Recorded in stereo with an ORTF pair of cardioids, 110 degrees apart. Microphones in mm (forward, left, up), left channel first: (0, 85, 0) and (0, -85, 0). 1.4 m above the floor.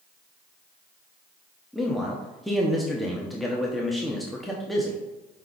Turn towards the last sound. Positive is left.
turn(degrees=0)